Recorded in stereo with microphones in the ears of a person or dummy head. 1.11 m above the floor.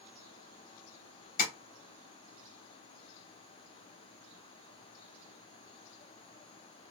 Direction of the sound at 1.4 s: 50° left (ahead or behind).